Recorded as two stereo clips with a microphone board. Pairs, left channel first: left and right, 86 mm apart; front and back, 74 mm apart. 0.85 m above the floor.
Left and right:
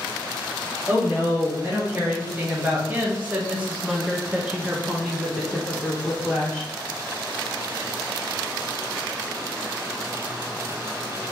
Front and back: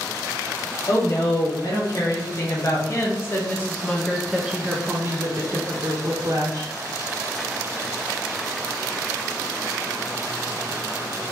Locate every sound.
0.9 s a woman speaking: 20° right, 1.9 m; by 6.7 s 170° left, 1.4 m